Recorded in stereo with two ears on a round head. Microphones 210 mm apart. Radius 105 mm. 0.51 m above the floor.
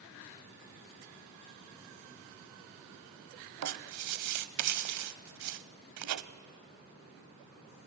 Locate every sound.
3.6 s writing: 80° right, 0.7 m